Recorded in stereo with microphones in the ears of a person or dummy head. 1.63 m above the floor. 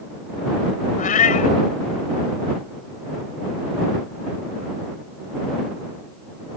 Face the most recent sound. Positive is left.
turn(degrees=45)  # may be behind; listen again after turning